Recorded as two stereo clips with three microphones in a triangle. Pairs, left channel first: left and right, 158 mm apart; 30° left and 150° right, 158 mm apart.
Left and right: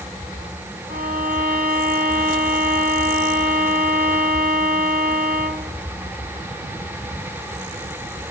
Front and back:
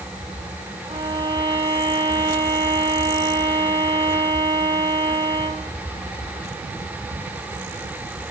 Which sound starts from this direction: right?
A violin, at 0.9 s.